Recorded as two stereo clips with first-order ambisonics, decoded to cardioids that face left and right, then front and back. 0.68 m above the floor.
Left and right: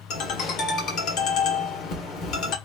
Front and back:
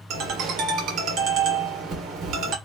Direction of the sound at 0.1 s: 135° left.